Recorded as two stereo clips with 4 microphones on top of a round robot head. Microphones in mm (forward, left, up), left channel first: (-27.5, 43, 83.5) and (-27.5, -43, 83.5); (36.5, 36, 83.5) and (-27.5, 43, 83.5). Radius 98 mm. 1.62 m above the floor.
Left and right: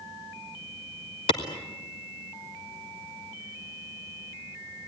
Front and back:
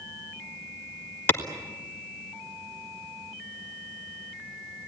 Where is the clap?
50° left, 1.3 m.